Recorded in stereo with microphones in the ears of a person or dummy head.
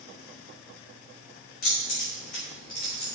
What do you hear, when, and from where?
1.6 s keys jangling: 50° left (ahead or behind), 3 m; by 3.1 s 35° left (ahead or behind), 2.5 m